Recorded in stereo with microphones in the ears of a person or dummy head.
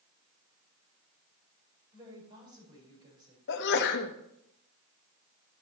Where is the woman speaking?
30° right (ahead or behind), 5.5 m.